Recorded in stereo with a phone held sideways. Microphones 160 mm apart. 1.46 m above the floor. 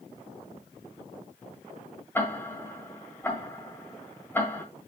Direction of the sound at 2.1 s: 15° left (ahead or behind).